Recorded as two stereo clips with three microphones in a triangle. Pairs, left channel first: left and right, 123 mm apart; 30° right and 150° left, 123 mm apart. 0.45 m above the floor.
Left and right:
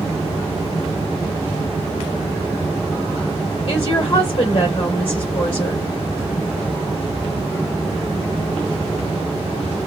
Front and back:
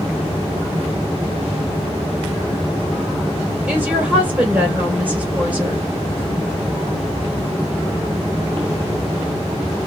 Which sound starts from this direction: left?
A woman speaking, at 3.7 s.